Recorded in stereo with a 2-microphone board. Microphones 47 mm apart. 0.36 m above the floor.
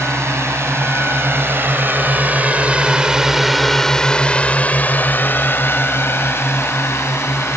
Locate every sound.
0.0 s a drone: 60° right (ahead or behind); by 7.6 s 65° left (ahead or behind)